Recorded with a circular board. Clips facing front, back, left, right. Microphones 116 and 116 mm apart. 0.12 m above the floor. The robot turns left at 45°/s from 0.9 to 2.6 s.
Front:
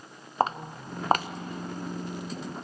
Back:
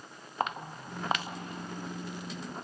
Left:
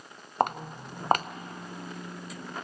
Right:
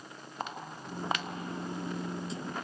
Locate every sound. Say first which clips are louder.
0.4 s footsteps: front 6 dB, left 12 dB; 55° left, 1.0 m; by 1.3 s 40° left, 1.0 m